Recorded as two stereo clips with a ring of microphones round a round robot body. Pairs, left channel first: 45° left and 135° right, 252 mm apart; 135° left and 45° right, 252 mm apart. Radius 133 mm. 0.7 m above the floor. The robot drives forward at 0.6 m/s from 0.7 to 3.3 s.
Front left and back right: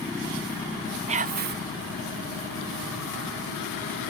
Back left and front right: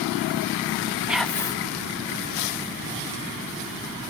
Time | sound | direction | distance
1.1 | whispering | 125° right | ?